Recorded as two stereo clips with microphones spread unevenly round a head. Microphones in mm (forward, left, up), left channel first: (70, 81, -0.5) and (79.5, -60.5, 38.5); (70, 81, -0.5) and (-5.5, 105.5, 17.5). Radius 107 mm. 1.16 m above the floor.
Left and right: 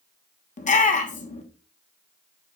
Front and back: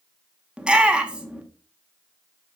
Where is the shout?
80° left, 1.2 m.